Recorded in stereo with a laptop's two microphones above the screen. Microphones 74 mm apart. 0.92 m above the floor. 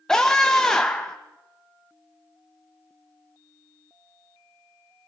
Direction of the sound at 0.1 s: 10° left (ahead or behind).